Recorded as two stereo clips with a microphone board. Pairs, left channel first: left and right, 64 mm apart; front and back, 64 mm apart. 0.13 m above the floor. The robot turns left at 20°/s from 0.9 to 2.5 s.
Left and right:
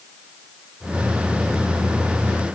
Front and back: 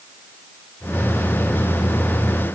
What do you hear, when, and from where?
Only background noise.